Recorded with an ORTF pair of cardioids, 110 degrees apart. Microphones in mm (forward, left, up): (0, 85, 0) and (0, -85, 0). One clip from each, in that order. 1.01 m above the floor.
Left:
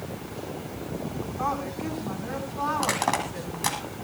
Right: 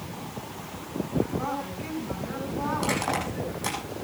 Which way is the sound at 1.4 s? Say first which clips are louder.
Left 3 dB; 45° left.